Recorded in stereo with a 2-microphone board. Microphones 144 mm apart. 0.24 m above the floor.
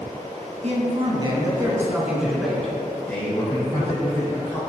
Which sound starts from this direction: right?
A man speaking, at 0.6 s.